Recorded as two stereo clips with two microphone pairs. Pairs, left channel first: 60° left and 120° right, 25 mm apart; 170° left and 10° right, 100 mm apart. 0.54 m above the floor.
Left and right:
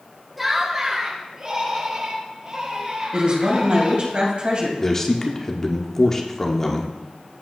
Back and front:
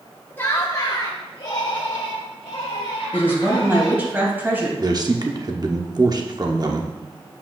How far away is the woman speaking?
About 3 m.